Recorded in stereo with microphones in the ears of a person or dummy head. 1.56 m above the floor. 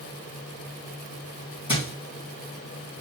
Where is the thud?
25° left (ahead or behind), 3 m.